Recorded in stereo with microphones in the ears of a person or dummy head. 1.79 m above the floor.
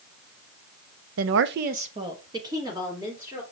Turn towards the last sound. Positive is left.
turn(degrees=-15)  # may be behind; listen again after turning